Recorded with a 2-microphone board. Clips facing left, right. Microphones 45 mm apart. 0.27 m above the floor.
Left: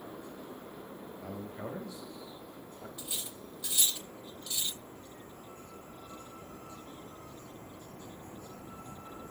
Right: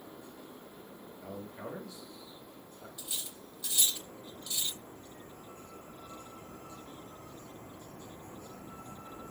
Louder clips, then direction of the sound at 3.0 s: Even; 20° left (ahead or behind).